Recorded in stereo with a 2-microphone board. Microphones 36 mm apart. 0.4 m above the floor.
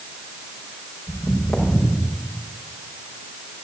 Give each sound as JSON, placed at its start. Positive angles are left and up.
{"t": 1.1, "sound": "footsteps", "side_deg": 20, "distance_m": 6.0}